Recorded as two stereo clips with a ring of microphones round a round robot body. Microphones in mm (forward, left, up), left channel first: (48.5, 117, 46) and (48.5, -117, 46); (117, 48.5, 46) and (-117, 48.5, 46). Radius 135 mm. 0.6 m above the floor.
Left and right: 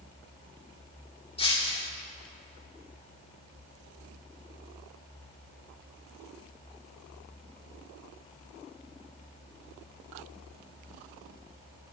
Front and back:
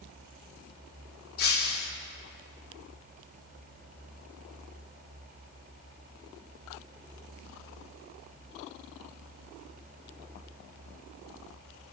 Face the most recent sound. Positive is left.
turn(degrees=25)